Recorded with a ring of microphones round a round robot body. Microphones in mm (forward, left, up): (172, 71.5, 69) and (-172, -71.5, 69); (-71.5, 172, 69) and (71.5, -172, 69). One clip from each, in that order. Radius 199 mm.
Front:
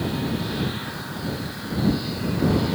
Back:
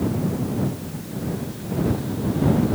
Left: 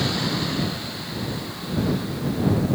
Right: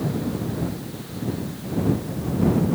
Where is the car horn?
I don't hear a car horn.